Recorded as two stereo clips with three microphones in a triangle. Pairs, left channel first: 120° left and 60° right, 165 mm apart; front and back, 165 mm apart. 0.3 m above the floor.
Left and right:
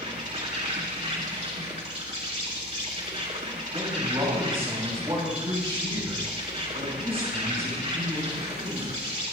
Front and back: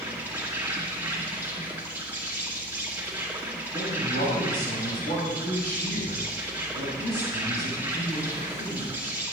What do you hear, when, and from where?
0.0 s an insect: 100° right, 3 m
3.7 s a man speaking: 5° right, 6 m